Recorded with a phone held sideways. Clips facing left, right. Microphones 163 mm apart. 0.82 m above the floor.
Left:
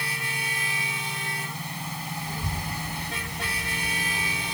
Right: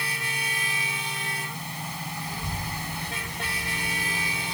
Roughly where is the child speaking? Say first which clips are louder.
Left 1 dB; left.